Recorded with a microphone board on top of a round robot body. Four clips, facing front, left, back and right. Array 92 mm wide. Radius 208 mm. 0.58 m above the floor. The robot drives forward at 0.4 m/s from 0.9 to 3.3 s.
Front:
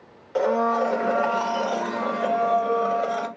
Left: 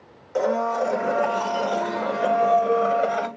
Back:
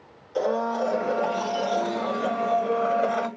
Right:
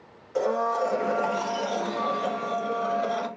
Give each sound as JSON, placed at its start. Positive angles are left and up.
{"t": 0.3, "sound": "a blender", "azimuth_deg": 25, "distance_m": 1.1}